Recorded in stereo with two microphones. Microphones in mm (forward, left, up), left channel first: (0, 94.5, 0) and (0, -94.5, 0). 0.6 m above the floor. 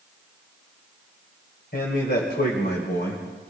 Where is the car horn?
I don't hear a car horn.